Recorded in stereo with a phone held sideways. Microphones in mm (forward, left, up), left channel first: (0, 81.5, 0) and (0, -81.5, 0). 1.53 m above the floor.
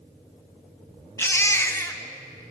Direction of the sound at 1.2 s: 15° left (ahead or behind).